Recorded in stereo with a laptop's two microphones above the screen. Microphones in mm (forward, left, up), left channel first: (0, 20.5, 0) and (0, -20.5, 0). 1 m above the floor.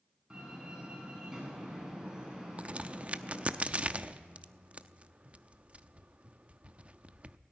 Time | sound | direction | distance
0.3 | a door slam | 15° right (ahead or behind) | 8 m
2.6 | a crack | 30° right (ahead or behind) | 0.7 m